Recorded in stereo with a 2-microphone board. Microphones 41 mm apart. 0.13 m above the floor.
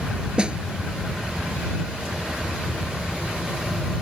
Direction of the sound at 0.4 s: 25° right (ahead or behind).